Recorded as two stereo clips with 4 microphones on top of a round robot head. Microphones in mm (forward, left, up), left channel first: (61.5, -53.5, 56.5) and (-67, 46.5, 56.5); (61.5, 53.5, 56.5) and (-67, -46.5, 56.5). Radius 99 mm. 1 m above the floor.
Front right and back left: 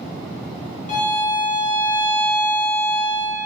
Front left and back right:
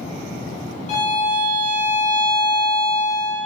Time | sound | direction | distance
0.9 | a violin | straight ahead | 1.6 m